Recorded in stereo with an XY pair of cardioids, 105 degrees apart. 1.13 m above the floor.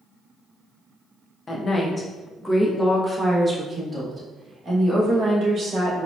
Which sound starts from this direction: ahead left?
A woman speaking, at 1.5 s.